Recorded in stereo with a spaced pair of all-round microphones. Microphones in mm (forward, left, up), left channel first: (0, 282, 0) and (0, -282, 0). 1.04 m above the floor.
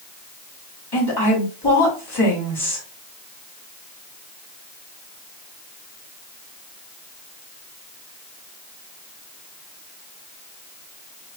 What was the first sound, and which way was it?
A woman speaking, 45° left (ahead or behind).